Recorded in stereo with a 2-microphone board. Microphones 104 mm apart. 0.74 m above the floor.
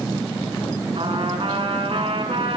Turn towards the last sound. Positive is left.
turn(degrees=-65)  # may be behind; listen again after turning